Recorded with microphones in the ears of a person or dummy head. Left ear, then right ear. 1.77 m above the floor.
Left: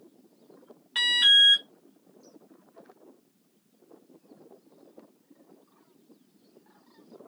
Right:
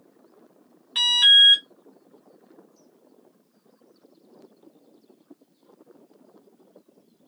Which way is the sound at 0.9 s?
Centre (ahead or behind).